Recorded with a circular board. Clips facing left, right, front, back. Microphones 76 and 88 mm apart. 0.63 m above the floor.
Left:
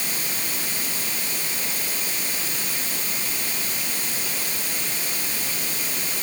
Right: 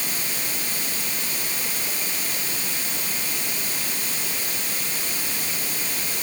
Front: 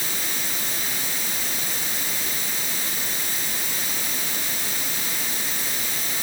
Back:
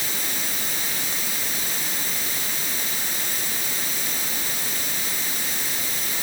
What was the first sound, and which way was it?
Only background noise.